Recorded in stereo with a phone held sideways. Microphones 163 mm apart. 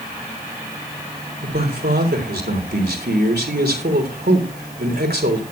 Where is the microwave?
I don't hear a microwave.